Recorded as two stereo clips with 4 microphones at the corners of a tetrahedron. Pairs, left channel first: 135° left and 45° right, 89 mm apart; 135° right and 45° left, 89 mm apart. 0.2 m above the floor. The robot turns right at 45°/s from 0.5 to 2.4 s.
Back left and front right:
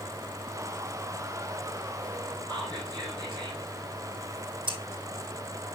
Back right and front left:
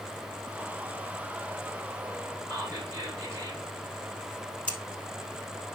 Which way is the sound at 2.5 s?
5° right.